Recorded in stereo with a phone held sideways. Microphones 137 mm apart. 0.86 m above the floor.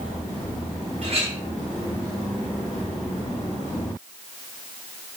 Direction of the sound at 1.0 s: 50° right (ahead or behind).